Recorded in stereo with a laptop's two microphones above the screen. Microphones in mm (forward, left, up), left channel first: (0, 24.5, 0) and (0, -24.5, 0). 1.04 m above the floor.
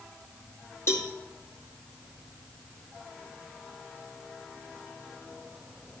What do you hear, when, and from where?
0.9 s a cowbell: 60° left (ahead or behind), 2.0 m